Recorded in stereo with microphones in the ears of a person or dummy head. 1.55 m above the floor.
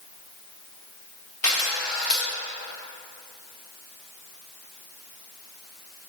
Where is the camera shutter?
5° left (ahead or behind), 2 m.